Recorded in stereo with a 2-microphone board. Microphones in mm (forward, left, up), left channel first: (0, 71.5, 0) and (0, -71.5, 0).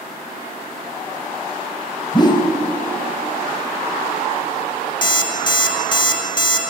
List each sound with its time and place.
2.1 s a whoosh: 30° left (ahead or behind), 0.8 m
5.0 s an alarm clock: 30° left (ahead or behind), 0.9 m